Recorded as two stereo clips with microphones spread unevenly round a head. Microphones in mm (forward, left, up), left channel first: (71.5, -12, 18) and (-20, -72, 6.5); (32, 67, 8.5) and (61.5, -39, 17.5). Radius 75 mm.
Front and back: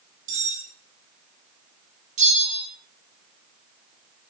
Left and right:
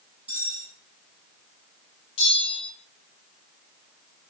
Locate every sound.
0.3 s cutlery clinking: 155° right, 7 m
2.2 s a bell: 165° left, 7.5 m